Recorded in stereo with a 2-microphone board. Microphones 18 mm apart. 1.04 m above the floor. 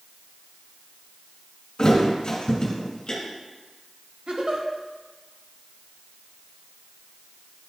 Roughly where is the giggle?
Right.